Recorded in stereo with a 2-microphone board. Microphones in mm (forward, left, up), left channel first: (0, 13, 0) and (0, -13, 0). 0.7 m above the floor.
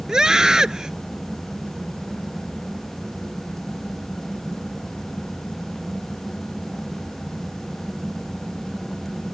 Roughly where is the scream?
Right.